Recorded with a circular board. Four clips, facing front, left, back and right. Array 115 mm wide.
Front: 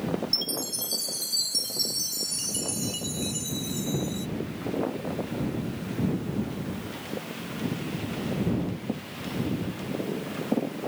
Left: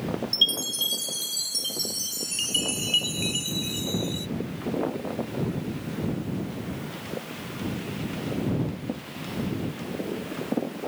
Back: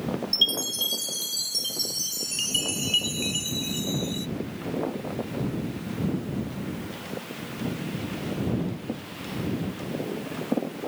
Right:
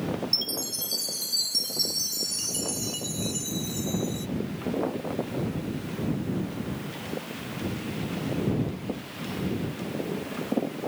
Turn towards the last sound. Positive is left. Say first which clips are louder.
# left 2 dB, back 1 dB
turn(degrees=130)